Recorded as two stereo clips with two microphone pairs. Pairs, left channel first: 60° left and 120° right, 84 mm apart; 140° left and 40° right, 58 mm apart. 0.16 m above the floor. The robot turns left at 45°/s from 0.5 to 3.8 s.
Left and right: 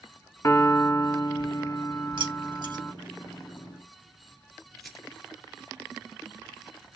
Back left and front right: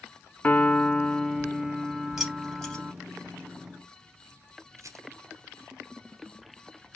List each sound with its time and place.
0.4 s a piano: 95° left, 0.6 m; by 2.9 s 15° right, 0.6 m
2.2 s keys jangling: 120° right, 2.5 m; by 2.8 s 150° right, 2.5 m
4.8 s a rattle: 30° right, 1.1 m